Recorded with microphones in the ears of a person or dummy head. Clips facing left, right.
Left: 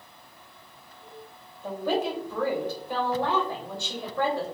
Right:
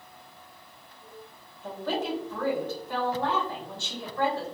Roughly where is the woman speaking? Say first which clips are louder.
Left 4 dB; centre.